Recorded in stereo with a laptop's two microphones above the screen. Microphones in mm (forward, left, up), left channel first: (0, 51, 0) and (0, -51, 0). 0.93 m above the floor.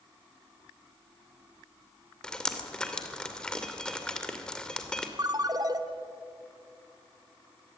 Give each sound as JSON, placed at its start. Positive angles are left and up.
{"t": 2.2, "sound": "dripping", "side_deg": 10, "distance_m": 2.0}
{"t": 5.2, "sound": "a ringtone", "side_deg": -40, "distance_m": 1.0}